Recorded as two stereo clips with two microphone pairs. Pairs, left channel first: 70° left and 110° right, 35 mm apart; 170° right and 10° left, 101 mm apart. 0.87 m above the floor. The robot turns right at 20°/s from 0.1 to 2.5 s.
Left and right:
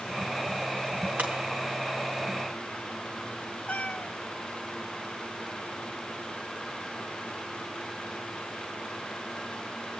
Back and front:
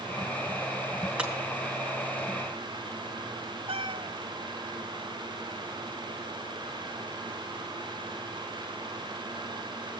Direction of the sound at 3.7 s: 30° left.